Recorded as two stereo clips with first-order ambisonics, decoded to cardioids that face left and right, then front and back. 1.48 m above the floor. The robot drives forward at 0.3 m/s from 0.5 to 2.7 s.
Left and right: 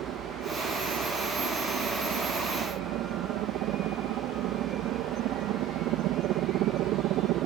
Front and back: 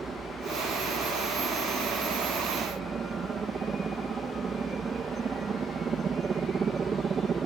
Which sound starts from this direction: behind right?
A helicopter, at 0.0 s.